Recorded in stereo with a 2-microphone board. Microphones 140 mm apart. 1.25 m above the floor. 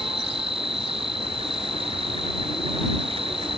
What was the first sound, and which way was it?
An insect, 45° right (ahead or behind).